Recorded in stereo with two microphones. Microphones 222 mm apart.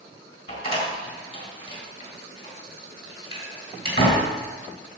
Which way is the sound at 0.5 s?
25° left (ahead or behind).